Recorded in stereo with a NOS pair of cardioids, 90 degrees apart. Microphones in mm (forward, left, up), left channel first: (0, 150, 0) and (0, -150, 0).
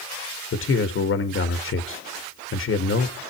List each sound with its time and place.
0.5 s a man speaking: 45° left, 1.8 m